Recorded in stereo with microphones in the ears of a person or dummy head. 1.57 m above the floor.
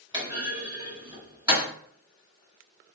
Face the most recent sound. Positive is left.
turn(degrees=-25)  # may be behind; listen again after turning